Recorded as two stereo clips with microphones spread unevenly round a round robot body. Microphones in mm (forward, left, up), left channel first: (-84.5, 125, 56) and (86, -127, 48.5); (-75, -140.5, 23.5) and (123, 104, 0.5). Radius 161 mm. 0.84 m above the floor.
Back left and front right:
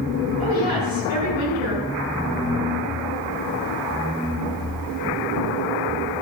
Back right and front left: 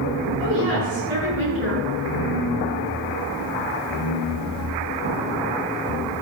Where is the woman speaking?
105° left, 7 m.